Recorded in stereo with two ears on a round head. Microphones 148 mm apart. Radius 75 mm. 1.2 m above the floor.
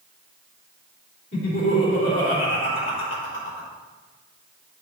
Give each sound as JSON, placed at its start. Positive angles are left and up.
{"t": 1.3, "sound": "laughter", "side_deg": 60, "distance_m": 3.5}